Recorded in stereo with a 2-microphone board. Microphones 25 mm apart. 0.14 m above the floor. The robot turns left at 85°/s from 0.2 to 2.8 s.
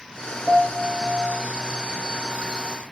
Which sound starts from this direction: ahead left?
A piano, at 0.5 s.